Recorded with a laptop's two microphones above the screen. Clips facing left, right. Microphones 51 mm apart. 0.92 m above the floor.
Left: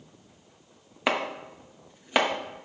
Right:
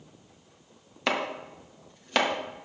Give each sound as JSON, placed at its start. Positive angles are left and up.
{"t": 1.1, "sound": "chopping", "side_deg": 15, "distance_m": 0.9}